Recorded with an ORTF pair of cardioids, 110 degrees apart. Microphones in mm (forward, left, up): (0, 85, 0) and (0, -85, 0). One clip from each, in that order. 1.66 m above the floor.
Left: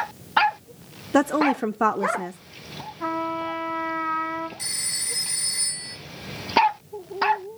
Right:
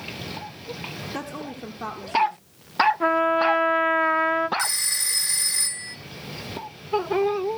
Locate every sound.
1.1 s a woman speaking: 60° left, 0.6 m
3.0 s a trumpet: 45° right, 0.7 m
4.6 s a phone ringing: 55° right, 2.0 m